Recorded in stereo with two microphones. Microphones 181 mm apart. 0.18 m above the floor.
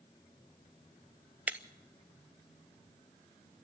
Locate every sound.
1.5 s breaking glass: 10° right (ahead or behind), 0.7 m